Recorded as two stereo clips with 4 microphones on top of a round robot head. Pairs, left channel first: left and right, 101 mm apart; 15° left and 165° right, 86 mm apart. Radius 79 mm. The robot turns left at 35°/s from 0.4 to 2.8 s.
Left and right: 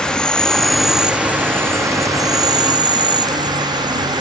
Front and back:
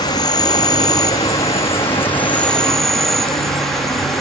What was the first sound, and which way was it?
An insect, 10° left.